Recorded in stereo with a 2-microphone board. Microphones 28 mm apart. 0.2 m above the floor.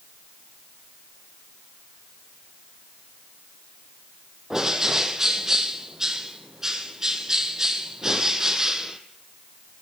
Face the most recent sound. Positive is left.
turn(degrees=-15)  # may be behind; listen again after turning